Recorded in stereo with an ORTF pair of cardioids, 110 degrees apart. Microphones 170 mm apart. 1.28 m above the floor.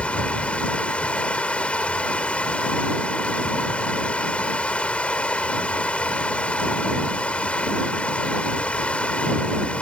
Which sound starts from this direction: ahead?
Running water, at 0.0 s.